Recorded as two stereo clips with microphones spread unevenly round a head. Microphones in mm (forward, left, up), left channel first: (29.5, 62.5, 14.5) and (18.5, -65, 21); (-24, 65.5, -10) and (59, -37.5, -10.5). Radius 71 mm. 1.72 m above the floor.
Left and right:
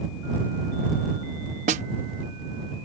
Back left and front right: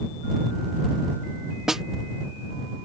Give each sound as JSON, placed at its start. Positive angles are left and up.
{"t": 1.7, "sound": "a snare drum", "azimuth_deg": -140}